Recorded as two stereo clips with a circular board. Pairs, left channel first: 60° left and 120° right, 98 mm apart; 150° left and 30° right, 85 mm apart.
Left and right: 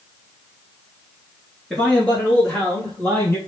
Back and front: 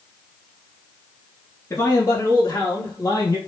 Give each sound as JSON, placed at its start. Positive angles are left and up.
{"t": 1.7, "sound": "a man speaking", "azimuth_deg": 140, "distance_m": 1.8}